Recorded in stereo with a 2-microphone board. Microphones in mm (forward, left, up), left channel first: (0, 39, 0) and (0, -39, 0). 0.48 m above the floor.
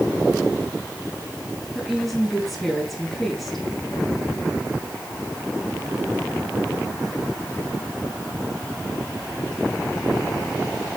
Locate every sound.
1.8 s a woman speaking: centre (ahead or behind), 4.5 m